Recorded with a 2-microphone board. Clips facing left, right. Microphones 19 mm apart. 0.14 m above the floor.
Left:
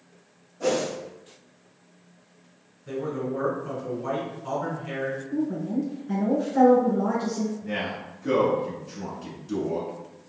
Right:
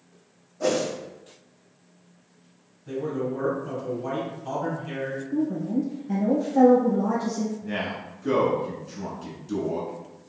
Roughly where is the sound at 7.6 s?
Centre.